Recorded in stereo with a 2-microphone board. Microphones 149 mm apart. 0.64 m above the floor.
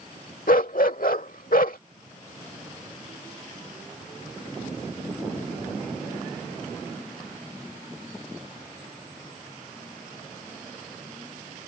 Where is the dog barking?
70° left (ahead or behind).